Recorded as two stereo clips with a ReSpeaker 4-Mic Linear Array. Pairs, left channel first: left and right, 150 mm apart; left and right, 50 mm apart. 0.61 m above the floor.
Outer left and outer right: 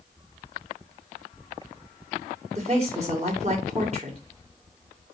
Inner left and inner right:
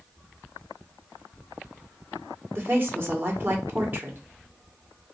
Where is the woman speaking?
45° right (ahead or behind), 1.7 m.